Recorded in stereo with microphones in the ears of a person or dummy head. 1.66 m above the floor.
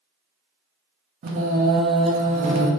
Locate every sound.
1.2 s singing: 55° right (ahead or behind), 0.8 m